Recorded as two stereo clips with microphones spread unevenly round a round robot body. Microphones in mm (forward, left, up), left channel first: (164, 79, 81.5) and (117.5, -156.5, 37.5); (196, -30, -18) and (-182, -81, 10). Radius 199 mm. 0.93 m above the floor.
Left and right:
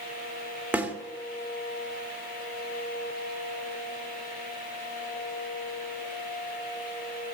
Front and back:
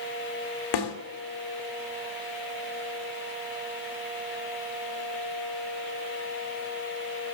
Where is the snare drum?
20° right, 2 m.